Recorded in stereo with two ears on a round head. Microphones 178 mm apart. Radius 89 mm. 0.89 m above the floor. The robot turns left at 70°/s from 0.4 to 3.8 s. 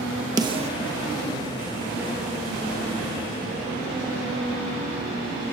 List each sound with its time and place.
0.4 s a snare drum: 20° right (ahead or behind), 0.7 m; by 0.7 s 35° right (ahead or behind), 0.7 m